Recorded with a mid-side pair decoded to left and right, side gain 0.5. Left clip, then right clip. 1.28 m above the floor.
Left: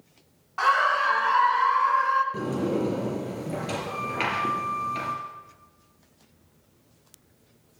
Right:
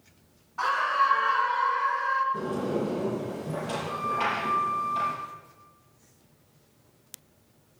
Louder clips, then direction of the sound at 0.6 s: Left 3 dB; 65° left.